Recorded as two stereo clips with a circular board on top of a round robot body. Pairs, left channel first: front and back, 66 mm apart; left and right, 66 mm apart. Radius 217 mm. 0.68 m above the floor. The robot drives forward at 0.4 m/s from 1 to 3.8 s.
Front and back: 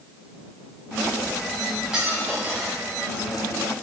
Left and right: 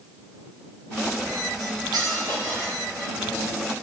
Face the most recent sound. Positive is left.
turn(degrees=-135)